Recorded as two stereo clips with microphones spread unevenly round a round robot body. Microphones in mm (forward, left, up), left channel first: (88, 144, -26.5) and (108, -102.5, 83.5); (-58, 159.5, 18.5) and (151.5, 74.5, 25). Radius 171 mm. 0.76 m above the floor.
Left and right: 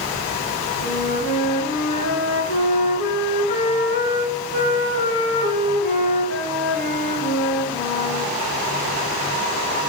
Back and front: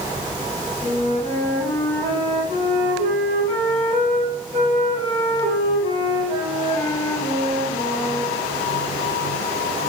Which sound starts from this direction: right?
A flute, at 0.8 s.